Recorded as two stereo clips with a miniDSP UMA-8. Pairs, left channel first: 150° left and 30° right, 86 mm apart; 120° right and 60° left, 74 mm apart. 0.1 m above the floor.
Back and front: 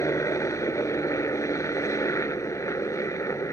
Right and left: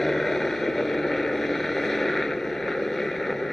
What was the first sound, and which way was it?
A helicopter, 155° left.